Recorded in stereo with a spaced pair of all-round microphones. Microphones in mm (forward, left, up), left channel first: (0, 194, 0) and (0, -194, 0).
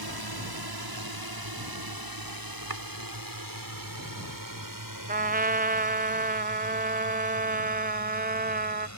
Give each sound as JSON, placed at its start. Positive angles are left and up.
{"t": 0.0, "sound": "a drone", "side_deg": -75}
{"t": 2.7, "sound": "chopping", "side_deg": -75}
{"t": 5.1, "sound": "a trumpet", "side_deg": -25}